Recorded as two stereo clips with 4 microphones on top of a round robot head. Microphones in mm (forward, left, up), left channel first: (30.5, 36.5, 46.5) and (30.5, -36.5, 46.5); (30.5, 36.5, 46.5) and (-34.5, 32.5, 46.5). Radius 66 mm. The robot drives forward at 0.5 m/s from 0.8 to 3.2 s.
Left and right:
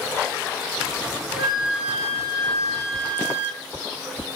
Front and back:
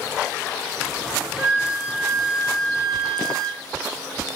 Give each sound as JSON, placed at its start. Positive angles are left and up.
{"t": 1.4, "sound": "a flute", "azimuth_deg": -105, "distance_m": 2.5}